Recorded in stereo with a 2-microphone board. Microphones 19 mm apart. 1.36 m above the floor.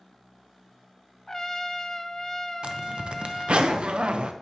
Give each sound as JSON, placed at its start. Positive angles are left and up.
{"t": 1.3, "sound": "a trumpet", "side_deg": 25, "distance_m": 0.5}
{"t": 2.6, "sound": "a zipper", "side_deg": -65, "distance_m": 0.7}